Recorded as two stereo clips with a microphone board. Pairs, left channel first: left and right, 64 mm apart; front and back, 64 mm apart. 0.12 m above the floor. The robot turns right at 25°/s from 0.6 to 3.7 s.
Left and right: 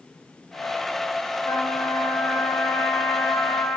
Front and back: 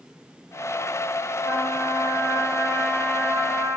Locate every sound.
1.4 s a trumpet: 70° left, 2.5 m; by 3.8 s 125° left, 2.5 m